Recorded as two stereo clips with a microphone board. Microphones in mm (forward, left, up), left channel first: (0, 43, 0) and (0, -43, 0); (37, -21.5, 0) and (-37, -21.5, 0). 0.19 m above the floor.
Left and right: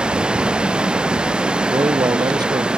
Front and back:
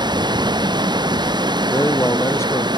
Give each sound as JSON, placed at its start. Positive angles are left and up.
{"t": 0.0, "sound": "running water", "azimuth_deg": -170}
{"t": 1.7, "sound": "a man speaking", "azimuth_deg": -55}